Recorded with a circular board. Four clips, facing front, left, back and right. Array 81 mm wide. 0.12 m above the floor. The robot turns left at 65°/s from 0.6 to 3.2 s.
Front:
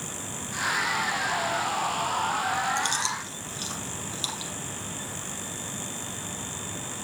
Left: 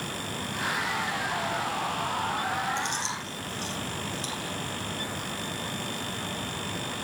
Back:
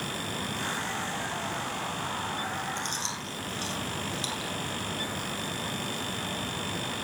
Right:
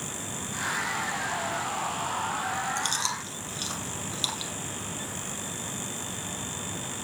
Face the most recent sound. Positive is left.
turn(degrees=-65)